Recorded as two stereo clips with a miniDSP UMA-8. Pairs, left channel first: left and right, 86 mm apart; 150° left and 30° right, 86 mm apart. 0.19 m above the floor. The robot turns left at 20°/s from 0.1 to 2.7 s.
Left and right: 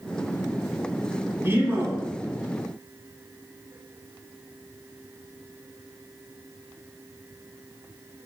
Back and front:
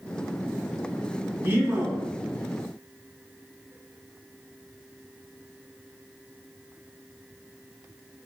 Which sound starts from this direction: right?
A man speaking, at 1.4 s.